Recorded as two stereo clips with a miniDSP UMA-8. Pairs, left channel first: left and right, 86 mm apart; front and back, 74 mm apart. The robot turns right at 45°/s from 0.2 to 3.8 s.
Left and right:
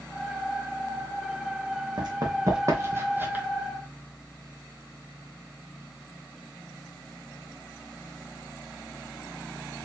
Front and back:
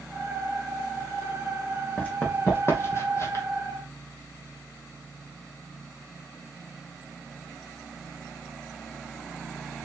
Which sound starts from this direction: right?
Running footsteps, at 2.0 s.